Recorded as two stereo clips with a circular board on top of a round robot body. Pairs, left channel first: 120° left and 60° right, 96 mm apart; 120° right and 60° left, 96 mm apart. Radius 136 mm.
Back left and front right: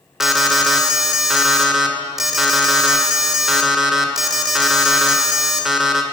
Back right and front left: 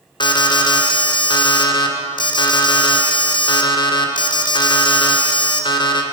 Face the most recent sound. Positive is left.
turn(degrees=-145)